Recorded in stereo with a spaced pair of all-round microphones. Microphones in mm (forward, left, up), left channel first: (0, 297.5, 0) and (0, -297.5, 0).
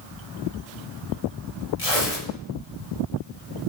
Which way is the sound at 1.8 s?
60° left (ahead or behind).